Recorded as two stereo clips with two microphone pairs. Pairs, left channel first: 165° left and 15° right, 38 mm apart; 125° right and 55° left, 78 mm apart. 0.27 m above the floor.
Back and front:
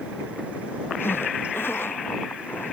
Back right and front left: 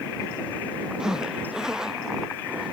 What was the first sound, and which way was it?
A zipper, 140° left.